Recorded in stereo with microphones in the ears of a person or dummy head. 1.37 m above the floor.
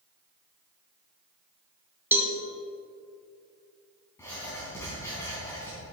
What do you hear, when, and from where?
2.1 s a cowbell: 10° right (ahead or behind), 1.2 m
4.2 s writing: 15° left (ahead or behind), 3.5 m